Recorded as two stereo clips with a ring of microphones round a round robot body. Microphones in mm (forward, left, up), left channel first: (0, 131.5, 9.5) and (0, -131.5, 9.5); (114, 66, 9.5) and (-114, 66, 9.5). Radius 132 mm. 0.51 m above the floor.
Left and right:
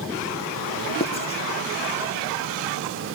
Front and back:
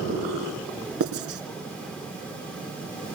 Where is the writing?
160° left, 2.5 m.